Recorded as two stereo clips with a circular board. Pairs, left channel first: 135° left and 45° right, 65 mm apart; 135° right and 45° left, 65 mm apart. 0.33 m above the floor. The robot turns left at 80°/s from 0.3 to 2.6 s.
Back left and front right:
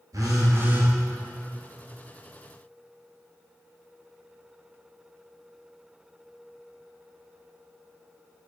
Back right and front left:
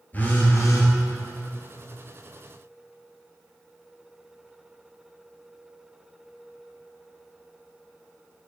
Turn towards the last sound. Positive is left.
turn(degrees=105)